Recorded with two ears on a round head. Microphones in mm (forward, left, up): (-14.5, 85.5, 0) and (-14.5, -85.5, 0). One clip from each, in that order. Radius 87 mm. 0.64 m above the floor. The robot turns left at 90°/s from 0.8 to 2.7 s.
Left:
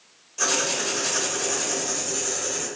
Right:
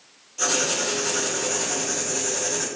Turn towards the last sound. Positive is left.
turn(degrees=-40)